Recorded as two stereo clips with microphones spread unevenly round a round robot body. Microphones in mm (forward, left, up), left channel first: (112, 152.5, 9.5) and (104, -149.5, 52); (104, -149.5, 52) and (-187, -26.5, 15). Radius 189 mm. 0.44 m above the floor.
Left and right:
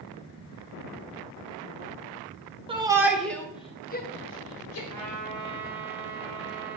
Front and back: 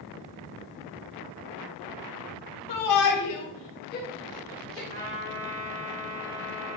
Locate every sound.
2.7 s a shout: 15° right, 1.8 m; by 4.8 s 70° left, 1.9 m
4.9 s a trumpet: 150° right, 4 m